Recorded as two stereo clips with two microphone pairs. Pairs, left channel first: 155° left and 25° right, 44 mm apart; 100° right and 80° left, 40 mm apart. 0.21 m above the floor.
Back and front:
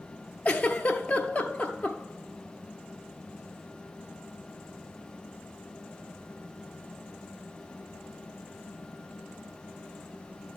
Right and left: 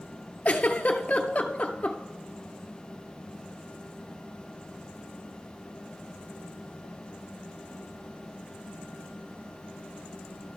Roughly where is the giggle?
Behind right.